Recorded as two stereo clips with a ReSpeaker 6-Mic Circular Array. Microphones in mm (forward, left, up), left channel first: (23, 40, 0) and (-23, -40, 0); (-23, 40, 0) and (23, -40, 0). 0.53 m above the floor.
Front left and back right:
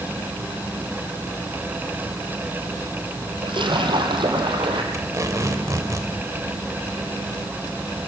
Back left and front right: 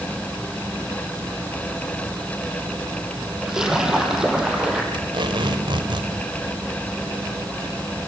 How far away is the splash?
About 3.5 m.